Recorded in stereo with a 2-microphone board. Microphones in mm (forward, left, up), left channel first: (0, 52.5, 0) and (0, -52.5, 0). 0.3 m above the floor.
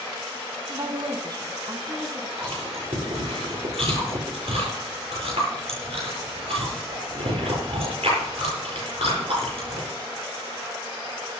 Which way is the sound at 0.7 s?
35° right (ahead or behind).